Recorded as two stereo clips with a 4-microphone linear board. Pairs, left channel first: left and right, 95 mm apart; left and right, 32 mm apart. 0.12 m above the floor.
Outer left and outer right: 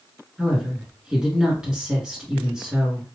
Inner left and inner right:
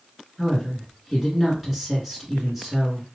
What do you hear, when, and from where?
0.4 s a woman speaking: 5° right (ahead or behind), 1.3 m